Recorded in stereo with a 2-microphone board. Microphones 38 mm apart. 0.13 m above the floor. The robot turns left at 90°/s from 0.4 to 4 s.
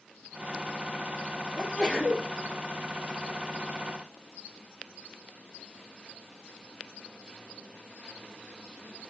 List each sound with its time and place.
1.6 s a sneeze: 20° left, 2.5 m; by 2.3 s 45° right, 2.5 m